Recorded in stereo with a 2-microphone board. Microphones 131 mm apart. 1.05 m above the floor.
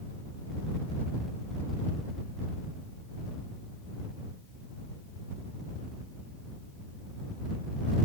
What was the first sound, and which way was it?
Only background noise.